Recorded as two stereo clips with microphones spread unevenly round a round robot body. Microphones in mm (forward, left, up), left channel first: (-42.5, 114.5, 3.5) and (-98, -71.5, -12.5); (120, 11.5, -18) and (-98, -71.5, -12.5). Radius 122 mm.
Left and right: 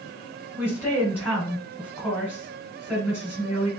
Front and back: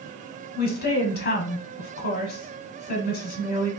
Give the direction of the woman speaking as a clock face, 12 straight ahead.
12 o'clock.